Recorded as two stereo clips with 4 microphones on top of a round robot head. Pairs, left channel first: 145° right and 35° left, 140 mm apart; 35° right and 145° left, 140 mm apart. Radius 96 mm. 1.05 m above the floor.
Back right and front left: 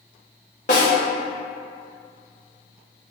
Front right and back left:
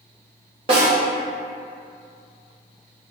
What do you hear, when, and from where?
0.7 s a snare drum: 175° right, 0.8 m